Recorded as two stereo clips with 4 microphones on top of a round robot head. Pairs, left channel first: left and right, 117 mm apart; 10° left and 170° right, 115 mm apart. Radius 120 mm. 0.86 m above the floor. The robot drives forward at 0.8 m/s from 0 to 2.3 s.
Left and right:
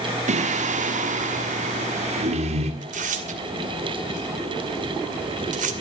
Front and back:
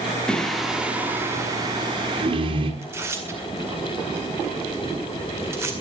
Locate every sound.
0.3 s singing: 75° right, 1.9 m; by 2.7 s 120° right, 2 m
2.8 s tearing paper: 100° right, 2 m